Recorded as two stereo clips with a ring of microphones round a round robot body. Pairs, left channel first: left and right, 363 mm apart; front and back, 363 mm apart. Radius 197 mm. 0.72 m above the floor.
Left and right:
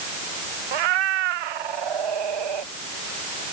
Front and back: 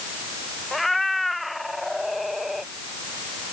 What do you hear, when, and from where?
0.7 s a cat meowing: 90° right